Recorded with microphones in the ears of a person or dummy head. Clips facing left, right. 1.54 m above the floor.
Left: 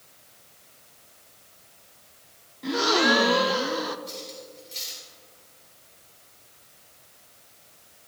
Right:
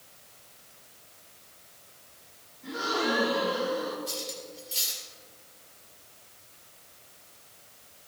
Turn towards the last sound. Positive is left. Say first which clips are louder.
# right 1 dB
turn(degrees=0)  # may be behind; listen again after turning